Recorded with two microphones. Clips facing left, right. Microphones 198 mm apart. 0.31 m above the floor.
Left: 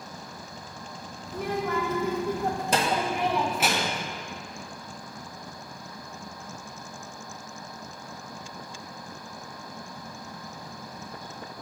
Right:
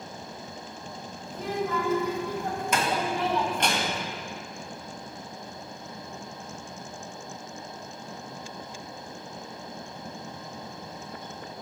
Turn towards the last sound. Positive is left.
turn(degrees=-5)  # may be behind; listen again after turning